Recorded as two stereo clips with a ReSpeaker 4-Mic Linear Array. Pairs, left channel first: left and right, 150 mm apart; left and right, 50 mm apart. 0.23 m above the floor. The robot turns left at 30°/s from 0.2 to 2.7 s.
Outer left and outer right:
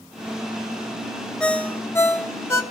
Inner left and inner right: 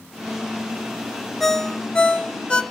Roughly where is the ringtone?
Centre.